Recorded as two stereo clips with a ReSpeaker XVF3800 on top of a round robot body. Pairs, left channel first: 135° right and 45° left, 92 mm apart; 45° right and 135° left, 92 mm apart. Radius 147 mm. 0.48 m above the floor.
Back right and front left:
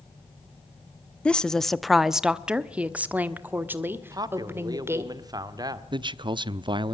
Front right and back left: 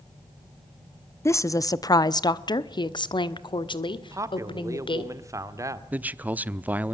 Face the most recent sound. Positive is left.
turn(degrees=65)